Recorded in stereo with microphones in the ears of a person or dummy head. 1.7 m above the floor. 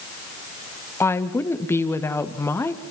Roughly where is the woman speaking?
Centre.